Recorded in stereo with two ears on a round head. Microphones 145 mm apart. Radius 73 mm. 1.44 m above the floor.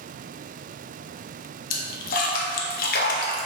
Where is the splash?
55° left (ahead or behind), 0.6 m.